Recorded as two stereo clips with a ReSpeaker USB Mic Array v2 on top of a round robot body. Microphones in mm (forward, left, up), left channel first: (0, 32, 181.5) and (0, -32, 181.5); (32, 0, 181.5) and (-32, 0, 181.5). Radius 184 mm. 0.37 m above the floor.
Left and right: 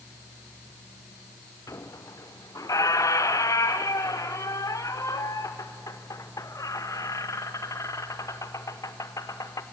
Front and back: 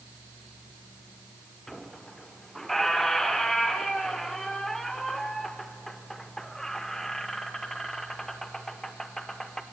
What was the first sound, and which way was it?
A squeak, 85° left.